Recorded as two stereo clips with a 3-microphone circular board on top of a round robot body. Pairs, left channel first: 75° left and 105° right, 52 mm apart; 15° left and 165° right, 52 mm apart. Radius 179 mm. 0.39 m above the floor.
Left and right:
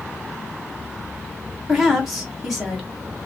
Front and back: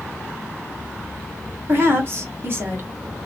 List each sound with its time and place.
1.7 s a woman speaking: 165° left, 1.6 m